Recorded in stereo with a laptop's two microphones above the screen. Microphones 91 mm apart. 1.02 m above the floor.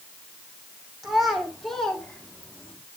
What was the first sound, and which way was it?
A child speaking, 5° right (ahead or behind).